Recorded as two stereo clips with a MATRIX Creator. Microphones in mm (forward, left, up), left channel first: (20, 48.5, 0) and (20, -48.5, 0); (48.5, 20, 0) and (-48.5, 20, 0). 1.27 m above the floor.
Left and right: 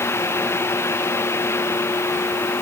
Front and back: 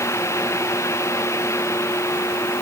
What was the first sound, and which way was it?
Only background noise.